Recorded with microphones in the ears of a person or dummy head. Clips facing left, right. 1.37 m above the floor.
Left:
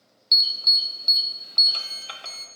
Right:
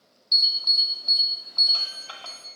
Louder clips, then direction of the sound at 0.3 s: Left 1 dB; 30° left (ahead or behind).